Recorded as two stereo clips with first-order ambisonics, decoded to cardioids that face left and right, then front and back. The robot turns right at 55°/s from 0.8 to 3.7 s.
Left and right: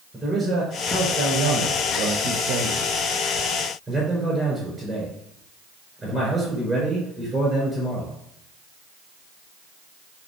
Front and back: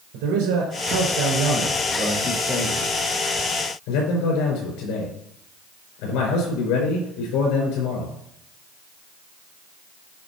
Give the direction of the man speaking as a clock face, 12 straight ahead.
6 o'clock.